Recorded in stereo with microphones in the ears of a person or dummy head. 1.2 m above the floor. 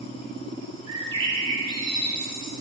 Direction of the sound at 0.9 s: 25° right (ahead or behind).